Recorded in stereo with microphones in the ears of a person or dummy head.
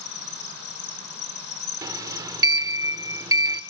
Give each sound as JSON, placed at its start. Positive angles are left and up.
{"t": 0.0, "sound": "an insect", "side_deg": 65, "distance_m": 2.5}
{"t": 1.8, "sound": "a sliding door", "side_deg": -25, "distance_m": 0.9}